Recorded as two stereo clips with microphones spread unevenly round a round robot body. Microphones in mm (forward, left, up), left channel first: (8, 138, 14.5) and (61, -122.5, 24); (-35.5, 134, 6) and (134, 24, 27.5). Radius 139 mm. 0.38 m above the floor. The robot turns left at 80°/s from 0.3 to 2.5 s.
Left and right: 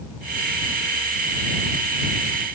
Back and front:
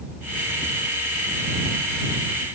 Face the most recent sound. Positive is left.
No sound to turn to.